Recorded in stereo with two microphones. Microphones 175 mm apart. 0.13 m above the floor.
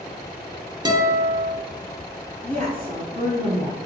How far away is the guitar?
About 0.5 m.